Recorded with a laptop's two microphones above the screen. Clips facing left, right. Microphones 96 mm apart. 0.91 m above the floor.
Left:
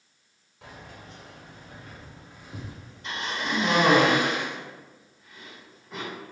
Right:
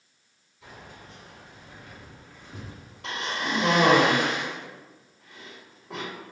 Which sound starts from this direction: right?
A cough, at 3.0 s.